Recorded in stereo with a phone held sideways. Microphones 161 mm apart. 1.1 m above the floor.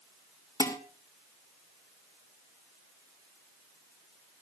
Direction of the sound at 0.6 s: 20° left (ahead or behind).